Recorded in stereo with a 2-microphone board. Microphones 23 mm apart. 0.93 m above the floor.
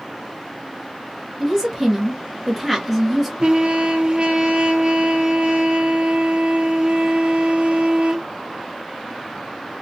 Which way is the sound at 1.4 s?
5° left (ahead or behind).